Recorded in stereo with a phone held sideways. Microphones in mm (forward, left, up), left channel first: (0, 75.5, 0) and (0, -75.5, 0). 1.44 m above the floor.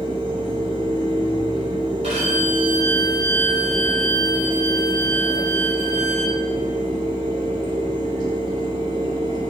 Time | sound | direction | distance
0.0 | a fan | 30° right (ahead or behind) | 1.8 m
2.0 | a violin | 45° right (ahead or behind) | 3.5 m